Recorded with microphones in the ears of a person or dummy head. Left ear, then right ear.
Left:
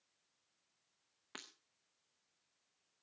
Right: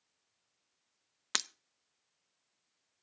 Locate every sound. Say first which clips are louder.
1.3 s breaking glass: right 18 dB; 65° right (ahead or behind), 0.6 m